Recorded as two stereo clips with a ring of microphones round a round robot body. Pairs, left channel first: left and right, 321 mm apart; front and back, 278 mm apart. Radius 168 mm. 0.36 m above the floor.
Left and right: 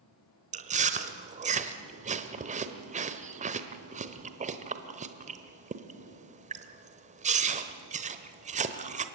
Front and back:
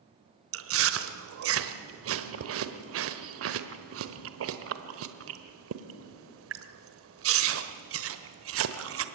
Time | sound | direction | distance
0.5 | chewing | 155° right | 1.2 m